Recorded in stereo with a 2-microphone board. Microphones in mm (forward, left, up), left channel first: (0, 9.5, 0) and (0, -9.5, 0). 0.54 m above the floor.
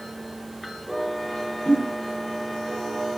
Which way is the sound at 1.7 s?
85° left.